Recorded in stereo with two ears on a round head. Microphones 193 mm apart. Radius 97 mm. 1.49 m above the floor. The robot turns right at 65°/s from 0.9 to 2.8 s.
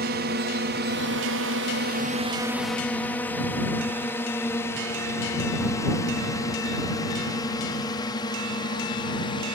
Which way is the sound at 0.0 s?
50° right (ahead or behind).